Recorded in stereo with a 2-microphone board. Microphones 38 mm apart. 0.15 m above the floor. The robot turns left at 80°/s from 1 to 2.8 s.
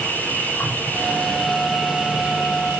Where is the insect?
65° left, 7.5 m; by 2.8 s 80° right, 7.5 m.